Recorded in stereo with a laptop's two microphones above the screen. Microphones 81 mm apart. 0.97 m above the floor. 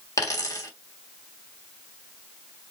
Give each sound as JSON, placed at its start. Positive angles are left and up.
{"t": 0.2, "sound": "a dropped coin", "side_deg": 40, "distance_m": 1.1}